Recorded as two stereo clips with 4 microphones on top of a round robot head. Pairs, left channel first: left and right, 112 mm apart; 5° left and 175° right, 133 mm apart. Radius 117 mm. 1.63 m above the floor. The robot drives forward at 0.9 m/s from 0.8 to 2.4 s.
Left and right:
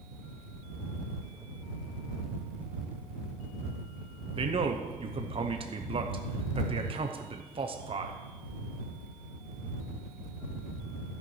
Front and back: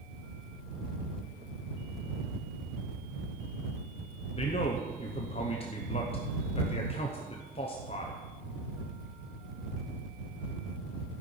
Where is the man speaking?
50° right, 0.8 m.